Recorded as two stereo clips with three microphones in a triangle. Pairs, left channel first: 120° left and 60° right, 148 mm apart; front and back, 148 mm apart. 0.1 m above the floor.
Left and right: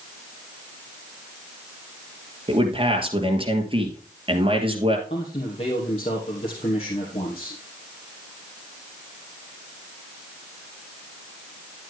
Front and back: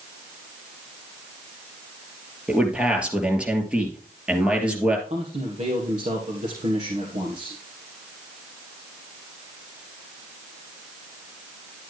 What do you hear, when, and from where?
2.5 s a man speaking: 100° right, 2.5 m
5.1 s a man speaking: 160° left, 2.5 m